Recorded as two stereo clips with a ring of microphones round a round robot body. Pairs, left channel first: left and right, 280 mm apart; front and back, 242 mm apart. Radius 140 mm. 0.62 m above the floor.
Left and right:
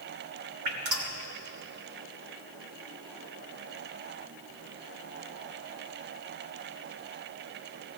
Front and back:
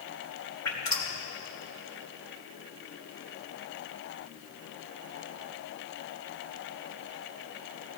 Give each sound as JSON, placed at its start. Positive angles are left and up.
{"t": 0.7, "sound": "dripping", "azimuth_deg": -80, "distance_m": 2.5}